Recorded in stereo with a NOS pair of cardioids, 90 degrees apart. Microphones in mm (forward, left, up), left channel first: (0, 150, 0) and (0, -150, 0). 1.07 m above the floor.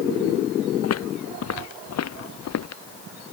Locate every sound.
0.8 s footsteps: 55° left; by 2.8 s 60° left